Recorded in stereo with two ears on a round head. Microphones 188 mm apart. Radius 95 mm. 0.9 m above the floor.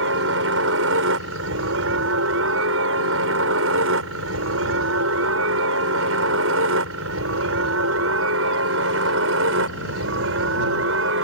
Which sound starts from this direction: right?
A helicopter, at 0.0 s.